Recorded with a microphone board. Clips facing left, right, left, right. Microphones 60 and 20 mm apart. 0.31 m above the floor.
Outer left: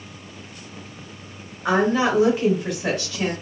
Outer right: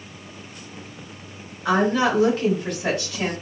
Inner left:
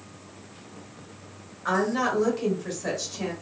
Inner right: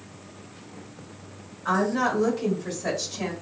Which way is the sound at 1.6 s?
30° left (ahead or behind).